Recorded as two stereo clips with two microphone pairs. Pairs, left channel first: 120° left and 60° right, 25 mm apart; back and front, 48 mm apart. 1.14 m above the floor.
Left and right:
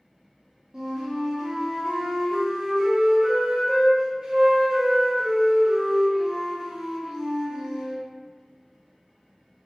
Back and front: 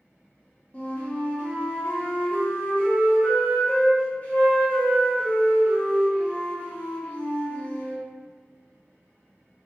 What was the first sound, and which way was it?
A flute, 125° right.